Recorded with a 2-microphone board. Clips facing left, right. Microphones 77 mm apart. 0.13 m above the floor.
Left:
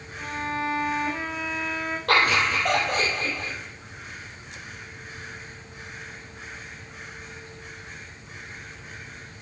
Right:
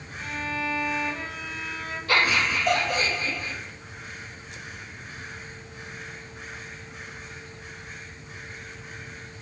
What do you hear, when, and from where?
0.2 s a violin: 80° left, 5 m
2.1 s laughter: 65° left (ahead or behind), 4.5 m